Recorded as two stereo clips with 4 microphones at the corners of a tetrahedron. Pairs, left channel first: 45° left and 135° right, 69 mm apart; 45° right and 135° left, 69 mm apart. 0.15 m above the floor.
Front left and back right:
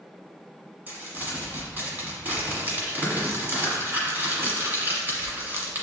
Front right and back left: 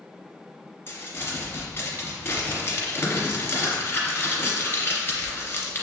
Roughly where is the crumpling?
Right.